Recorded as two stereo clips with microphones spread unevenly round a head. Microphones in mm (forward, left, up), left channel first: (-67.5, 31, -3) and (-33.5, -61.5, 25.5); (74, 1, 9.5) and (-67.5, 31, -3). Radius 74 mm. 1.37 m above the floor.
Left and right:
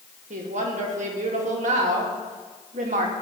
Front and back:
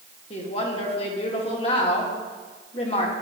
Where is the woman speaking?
70° right, 2.5 m.